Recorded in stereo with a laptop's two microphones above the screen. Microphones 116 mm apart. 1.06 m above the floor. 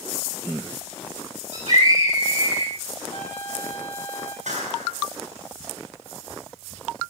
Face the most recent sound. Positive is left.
turn(degrees=-85)